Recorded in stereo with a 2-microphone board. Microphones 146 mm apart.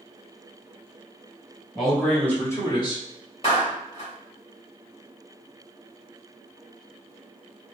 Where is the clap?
45° left (ahead or behind), 1.8 m.